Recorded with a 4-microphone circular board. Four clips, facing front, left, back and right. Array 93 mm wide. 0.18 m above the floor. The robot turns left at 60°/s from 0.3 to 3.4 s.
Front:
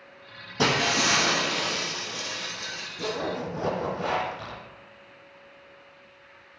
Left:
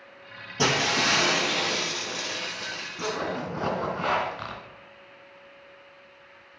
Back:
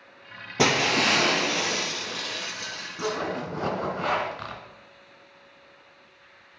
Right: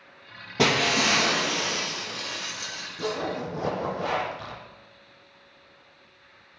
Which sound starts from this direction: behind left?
A zipper, at 3.0 s.